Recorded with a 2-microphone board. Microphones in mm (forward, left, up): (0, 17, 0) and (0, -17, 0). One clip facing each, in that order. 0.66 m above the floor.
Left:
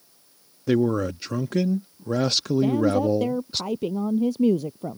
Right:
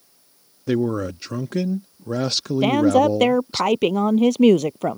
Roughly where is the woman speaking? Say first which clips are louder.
Right 7 dB; right.